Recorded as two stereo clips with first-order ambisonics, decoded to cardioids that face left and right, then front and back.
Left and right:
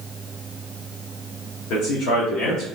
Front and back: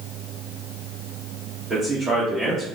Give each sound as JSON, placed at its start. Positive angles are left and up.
{"t": 1.7, "sound": "a man speaking", "azimuth_deg": 105, "distance_m": 1.0}